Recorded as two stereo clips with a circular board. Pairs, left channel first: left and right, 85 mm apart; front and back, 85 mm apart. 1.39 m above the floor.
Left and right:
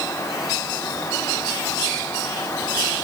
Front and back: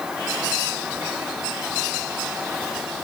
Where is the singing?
No singing in this recording.